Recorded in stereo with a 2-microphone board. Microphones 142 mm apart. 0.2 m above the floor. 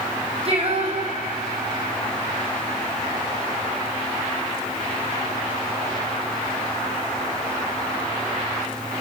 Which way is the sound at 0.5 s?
40° right (ahead or behind).